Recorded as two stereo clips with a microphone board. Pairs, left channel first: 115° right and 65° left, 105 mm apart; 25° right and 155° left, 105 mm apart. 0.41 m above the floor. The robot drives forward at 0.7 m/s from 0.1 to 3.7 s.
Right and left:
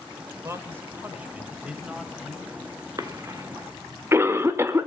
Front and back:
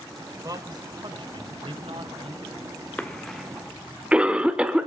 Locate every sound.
0.4 s a man speaking: 120° left, 1.4 m; by 2.6 s 155° left, 2.5 m
3.0 s a cough: 45° left, 1.2 m; by 4.9 s 90° left, 1.0 m